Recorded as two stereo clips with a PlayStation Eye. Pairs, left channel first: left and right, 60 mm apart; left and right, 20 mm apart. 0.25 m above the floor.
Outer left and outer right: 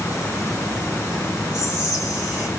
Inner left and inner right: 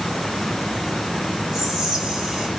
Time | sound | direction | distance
1.5 | whispering | 15° right (ahead or behind) | 1.2 m